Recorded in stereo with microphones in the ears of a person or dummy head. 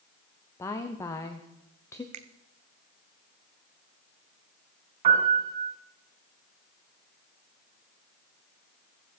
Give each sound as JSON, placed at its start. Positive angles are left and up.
{"t": 0.6, "sound": "a woman speaking", "side_deg": 15, "distance_m": 0.8}
{"t": 2.1, "sound": "a finger snap", "side_deg": -40, "distance_m": 0.6}
{"t": 5.0, "sound": "a piano", "side_deg": -35, "distance_m": 2.5}